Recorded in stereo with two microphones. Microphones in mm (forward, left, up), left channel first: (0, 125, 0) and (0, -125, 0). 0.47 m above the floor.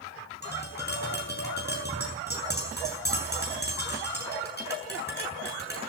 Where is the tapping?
40° left (ahead or behind), 7 m.